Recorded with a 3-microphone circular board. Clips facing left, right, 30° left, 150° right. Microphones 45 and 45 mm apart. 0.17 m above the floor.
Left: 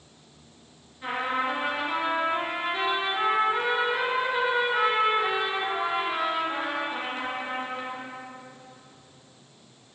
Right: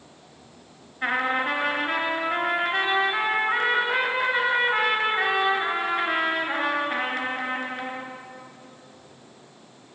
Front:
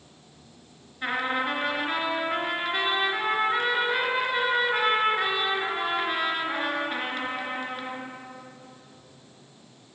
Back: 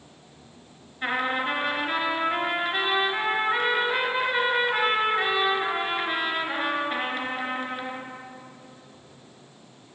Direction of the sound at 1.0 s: 65° right.